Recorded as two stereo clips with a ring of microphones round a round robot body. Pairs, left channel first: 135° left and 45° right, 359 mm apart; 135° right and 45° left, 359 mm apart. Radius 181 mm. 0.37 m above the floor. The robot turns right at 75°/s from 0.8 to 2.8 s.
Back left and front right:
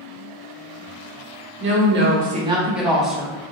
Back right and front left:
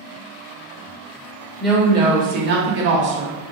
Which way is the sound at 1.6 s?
50° right.